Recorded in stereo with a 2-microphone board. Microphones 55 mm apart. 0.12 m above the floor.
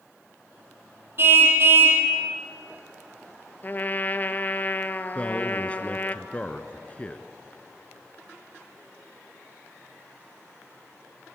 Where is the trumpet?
35° left (ahead or behind), 1.0 m.